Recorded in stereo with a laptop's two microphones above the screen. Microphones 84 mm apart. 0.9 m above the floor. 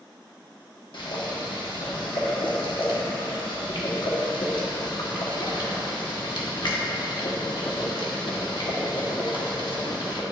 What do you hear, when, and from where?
0.9 s boiling: 65° left (ahead or behind), 1.3 m